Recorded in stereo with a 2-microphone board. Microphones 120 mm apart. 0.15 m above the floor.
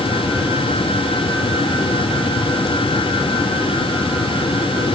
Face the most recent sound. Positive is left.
No sound to turn to.